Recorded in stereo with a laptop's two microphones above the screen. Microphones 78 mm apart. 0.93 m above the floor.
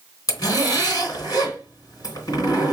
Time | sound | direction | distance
0.3 | a zipper | 50° left (ahead or behind) | 3 m